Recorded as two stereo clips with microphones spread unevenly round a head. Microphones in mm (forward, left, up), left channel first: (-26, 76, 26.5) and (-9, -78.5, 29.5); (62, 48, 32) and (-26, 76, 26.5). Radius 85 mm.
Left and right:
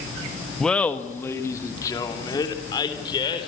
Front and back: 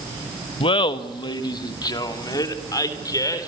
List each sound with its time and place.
0.6 s laughter: 10° left, 1.3 m; by 3.5 s 30° left, 4.5 m